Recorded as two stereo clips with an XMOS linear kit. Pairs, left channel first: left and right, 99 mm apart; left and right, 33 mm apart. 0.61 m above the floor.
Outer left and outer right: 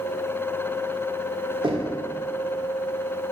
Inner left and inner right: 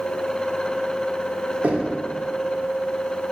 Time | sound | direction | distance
1.6 | knocking | 50° right (ahead or behind) | 1.3 m